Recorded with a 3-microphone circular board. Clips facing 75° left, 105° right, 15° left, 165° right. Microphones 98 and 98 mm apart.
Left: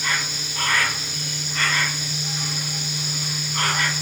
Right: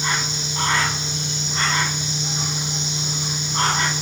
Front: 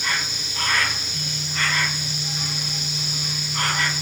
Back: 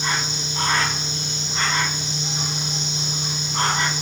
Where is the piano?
I don't hear a piano.